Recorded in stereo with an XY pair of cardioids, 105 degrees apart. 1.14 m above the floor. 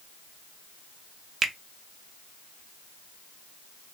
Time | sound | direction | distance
1.4 | a finger snap | 30° right | 1.0 m